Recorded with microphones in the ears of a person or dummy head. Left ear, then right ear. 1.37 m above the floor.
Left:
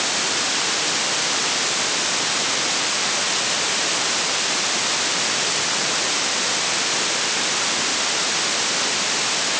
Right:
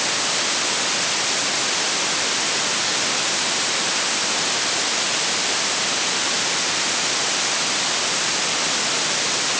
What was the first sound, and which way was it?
Only background noise.